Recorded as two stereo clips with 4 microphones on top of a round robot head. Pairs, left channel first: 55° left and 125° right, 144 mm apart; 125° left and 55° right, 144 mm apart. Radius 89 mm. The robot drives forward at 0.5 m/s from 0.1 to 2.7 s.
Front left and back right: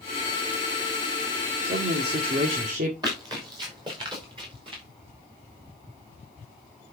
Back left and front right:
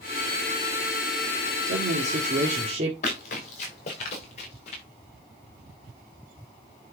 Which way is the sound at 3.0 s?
170° left.